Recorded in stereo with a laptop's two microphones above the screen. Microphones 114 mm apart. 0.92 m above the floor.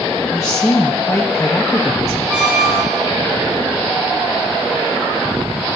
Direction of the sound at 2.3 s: 10° right (ahead or behind).